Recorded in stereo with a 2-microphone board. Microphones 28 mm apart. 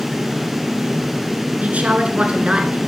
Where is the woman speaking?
50° right (ahead or behind), 1.6 m; by 2.8 s 30° right (ahead or behind), 1.6 m.